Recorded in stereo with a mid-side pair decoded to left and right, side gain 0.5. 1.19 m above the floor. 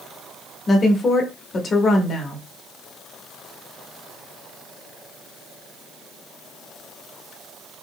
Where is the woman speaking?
40° left, 1.3 m.